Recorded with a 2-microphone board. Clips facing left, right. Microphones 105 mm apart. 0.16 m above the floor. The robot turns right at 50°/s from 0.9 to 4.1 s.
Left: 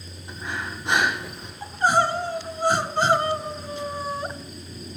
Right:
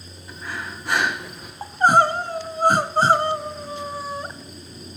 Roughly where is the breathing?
Behind.